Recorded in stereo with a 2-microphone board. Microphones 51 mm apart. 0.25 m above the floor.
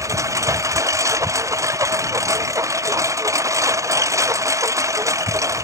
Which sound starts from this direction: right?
A lawn mower, at 0.0 s.